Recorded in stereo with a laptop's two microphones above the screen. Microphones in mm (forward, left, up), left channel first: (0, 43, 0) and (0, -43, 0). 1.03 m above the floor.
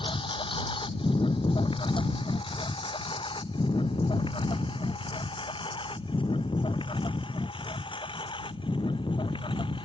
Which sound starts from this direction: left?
A lawn mower, at 0.0 s.